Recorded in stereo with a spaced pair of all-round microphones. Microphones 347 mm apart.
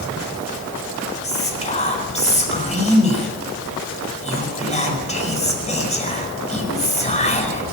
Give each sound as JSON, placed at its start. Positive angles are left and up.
{"t": 1.2, "sound": "whispering", "side_deg": 20, "distance_m": 5.0}